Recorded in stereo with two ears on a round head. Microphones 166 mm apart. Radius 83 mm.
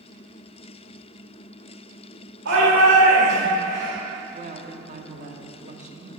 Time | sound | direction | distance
2.5 | a shout | 65° right (ahead or behind) | 2 m
4.3 | a woman speaking | 40° right (ahead or behind) | 0.9 m